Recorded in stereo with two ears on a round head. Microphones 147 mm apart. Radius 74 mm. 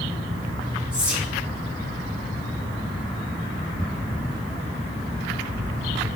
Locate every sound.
0.9 s whispering: 5° right (ahead or behind), 2 m